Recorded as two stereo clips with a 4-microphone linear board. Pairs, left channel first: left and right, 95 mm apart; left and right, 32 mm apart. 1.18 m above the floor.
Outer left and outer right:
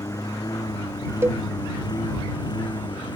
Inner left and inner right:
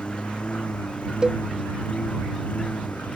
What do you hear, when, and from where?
0.0 s a lawn mower: 40° left (ahead or behind); by 3.2 s 50° left (ahead or behind)
1.2 s a cowbell: 25° right (ahead or behind)